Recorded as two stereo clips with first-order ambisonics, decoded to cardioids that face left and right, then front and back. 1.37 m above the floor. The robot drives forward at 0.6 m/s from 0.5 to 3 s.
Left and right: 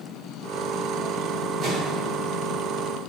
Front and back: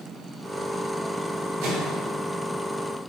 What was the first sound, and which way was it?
A microwave, 165° right.